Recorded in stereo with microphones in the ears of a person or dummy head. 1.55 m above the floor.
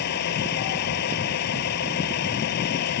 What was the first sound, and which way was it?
A vehicle, 55° left (ahead or behind).